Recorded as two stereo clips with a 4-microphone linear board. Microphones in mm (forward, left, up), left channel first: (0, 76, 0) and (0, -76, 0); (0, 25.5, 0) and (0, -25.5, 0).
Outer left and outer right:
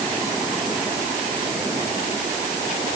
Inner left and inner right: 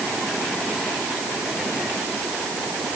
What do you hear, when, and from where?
Only background noise.